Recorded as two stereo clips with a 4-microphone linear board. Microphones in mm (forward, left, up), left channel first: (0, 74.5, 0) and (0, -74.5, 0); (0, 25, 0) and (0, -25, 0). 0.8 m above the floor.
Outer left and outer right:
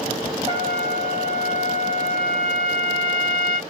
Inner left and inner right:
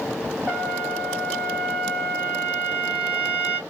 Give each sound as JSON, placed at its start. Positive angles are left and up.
{"t": 0.5, "sound": "a trumpet", "side_deg": -30, "distance_m": 2.0}